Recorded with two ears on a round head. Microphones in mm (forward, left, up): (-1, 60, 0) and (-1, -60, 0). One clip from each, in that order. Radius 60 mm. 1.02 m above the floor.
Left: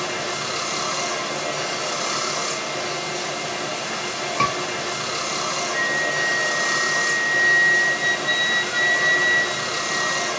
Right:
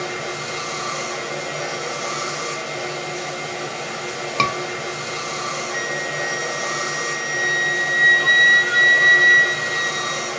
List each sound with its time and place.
0.0 s running water: 70° left (ahead or behind), 1.5 m
4.4 s a scream: 65° right (ahead or behind), 0.9 m
5.7 s a flute: 55° right (ahead or behind), 0.6 m